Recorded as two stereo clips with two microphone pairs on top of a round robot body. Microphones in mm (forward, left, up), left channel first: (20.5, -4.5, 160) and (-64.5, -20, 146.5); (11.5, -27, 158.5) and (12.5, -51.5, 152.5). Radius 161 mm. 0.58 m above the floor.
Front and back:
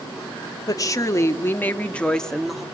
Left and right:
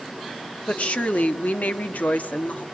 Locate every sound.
0.7 s a woman speaking: 60° left, 2.0 m; by 2.6 s 110° left, 1.9 m